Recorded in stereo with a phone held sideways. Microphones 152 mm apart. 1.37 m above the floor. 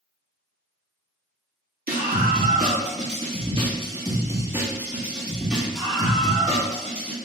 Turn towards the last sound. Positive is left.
turn(degrees=10)  # may be behind; listen again after turning